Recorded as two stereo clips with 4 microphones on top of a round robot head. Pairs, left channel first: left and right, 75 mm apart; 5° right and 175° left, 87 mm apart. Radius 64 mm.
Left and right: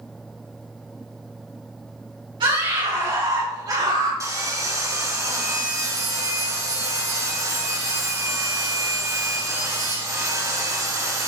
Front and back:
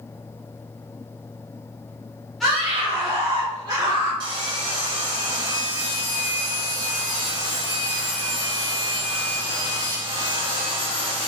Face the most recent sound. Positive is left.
turn(degrees=-130)